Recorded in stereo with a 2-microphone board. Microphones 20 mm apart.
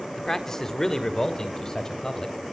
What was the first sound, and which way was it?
A man speaking, 20° left (ahead or behind).